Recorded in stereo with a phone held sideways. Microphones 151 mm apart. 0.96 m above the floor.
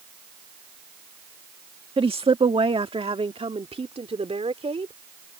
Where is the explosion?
No explosion in this recording.